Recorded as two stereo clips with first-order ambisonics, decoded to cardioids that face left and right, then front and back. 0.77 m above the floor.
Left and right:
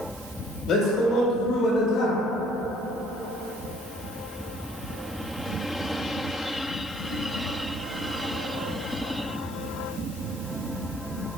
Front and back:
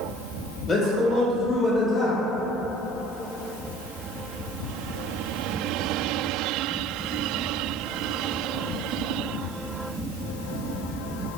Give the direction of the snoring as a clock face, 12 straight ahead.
I don't hear snoring.